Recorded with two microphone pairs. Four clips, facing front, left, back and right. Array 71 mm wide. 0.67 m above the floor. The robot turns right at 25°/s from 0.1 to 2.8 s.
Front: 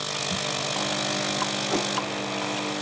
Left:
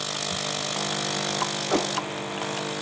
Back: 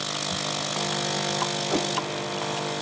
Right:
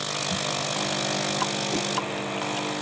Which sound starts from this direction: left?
A whoosh, at 1.7 s.